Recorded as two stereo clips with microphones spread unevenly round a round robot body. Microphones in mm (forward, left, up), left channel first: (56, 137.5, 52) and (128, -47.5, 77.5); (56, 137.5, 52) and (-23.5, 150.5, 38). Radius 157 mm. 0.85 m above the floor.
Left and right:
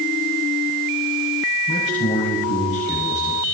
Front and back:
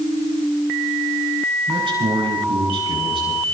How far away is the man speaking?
About 9.5 m.